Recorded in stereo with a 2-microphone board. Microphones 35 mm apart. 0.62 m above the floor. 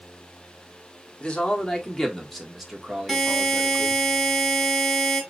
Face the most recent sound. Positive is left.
turn(degrees=0)  # may be behind; listen again after turning